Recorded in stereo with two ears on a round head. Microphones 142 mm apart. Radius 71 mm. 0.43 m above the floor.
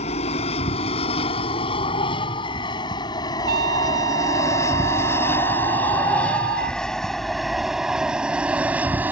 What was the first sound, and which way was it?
An aircraft, 40° left (ahead or behind).